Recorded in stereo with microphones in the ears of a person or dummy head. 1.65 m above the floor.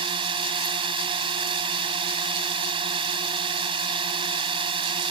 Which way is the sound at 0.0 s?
30° right (ahead or behind).